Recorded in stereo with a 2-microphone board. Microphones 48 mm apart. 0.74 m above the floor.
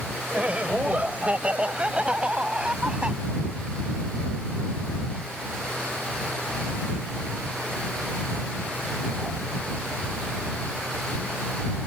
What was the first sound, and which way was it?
Laughter, 30° right (ahead or behind).